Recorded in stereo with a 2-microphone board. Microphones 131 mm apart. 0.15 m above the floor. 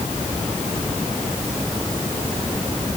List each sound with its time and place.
Only background noise.